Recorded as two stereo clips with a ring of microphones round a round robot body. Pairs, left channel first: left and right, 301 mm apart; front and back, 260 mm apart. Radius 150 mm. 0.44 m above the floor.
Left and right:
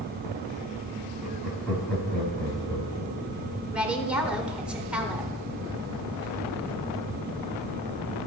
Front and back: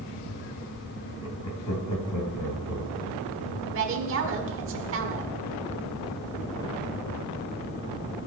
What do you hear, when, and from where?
1.2 s laughter: 5° right, 2.5 m; by 3.6 s 25° left, 2 m
3.7 s a woman speaking: 175° right, 1.2 m